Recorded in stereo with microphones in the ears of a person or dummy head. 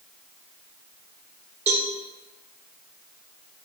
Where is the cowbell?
5° right (ahead or behind), 1.0 m.